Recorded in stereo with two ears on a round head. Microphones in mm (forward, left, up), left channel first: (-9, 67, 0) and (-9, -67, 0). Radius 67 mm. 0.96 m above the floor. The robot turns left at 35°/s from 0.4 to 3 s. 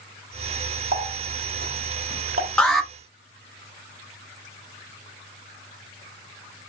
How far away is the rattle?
I don't hear a rattle.